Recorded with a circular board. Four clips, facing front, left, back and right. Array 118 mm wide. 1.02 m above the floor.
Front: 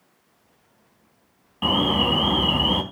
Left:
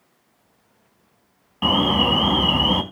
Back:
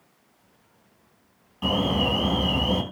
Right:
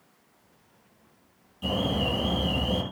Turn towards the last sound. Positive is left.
turn(degrees=65)